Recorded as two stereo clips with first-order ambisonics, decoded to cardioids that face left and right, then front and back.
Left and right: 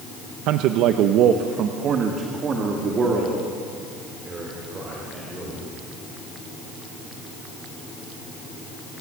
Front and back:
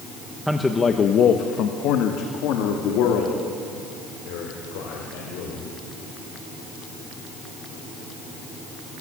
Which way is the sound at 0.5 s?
95° right.